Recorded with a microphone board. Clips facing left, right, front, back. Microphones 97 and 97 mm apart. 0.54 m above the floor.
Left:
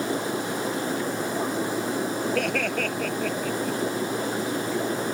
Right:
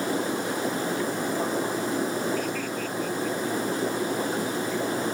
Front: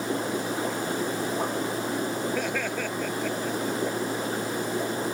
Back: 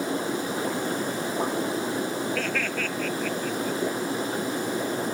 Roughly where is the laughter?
Left.